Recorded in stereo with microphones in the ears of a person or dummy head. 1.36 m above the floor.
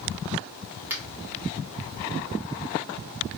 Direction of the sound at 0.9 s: 10° right (ahead or behind).